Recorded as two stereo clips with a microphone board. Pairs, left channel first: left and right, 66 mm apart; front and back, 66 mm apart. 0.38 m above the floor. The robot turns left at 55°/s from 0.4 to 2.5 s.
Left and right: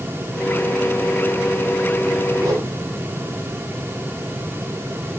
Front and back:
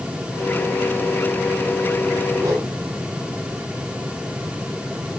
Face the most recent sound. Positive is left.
turn(degrees=-135)